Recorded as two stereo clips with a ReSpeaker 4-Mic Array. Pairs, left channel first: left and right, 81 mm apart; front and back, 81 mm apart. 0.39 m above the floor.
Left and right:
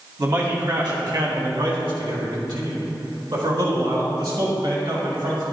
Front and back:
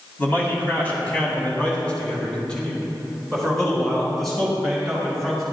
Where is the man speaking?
60° right, 2.5 m; by 5.4 s 90° right, 4.5 m.